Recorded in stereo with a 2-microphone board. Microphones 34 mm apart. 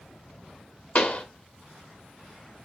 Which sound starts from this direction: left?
A pop, at 0.9 s.